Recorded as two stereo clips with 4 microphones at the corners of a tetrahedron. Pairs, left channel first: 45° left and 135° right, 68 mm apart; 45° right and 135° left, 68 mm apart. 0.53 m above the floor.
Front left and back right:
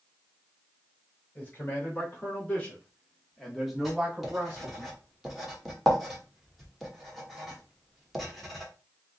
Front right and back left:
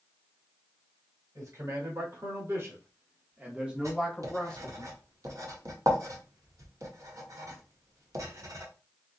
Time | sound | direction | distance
1.4 | a man speaking | 105° left | 2 m
3.8 | writing | 135° left | 1.4 m